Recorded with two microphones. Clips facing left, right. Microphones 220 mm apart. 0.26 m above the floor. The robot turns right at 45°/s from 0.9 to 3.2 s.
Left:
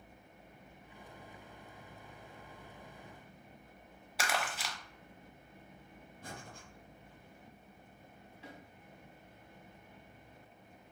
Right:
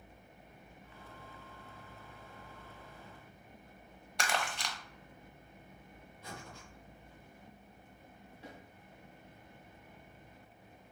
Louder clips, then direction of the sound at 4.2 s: Even; 5° left (ahead or behind).